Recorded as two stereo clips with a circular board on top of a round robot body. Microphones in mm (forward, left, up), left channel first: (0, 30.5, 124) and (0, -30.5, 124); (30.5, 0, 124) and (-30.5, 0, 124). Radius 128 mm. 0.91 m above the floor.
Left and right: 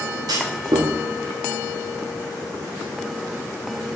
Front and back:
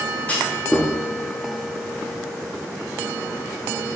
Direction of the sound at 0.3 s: 70° right.